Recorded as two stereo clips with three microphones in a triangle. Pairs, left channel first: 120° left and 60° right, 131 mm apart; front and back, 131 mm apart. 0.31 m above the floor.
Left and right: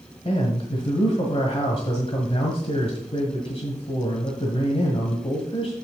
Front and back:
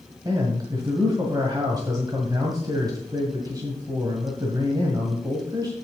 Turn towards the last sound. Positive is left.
turn(degrees=135)